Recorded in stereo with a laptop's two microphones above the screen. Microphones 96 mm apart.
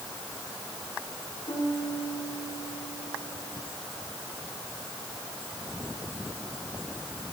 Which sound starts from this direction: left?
A piano, at 1.5 s.